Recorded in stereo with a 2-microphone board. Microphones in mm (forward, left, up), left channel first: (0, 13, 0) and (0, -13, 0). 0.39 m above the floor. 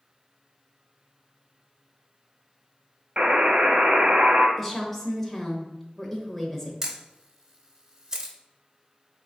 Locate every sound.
3.2 s a buzzer: 55° right (ahead or behind), 0.7 m
4.6 s a woman speaking: 10° left (ahead or behind), 1.1 m
6.8 s a camera shutter: 25° right (ahead or behind), 0.6 m